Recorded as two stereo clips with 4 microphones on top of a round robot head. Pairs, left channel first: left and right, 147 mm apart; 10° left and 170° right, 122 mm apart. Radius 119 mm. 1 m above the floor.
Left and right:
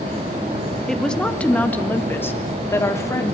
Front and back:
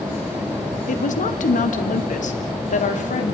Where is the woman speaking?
5° left, 1.9 m; by 3.4 s 20° left, 3 m.